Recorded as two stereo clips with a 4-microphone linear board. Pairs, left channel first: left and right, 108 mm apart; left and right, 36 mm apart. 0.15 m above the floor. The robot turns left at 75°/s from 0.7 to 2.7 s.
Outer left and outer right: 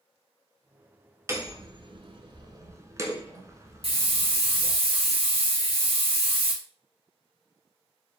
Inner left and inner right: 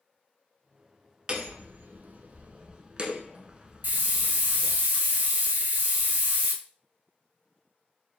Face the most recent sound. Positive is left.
turn(degrees=-60)  # may be behind; listen again after turning